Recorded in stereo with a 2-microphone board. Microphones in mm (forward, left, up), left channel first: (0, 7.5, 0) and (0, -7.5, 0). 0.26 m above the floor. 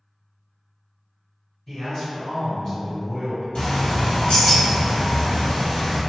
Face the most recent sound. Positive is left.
turn(degrees=75)  # may be behind; listen again after turning